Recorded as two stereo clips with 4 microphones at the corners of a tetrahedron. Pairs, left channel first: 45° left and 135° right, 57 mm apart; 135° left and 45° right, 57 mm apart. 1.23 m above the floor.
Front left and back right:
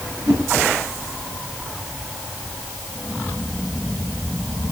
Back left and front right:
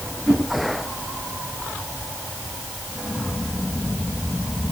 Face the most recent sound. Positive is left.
turn(degrees=-130)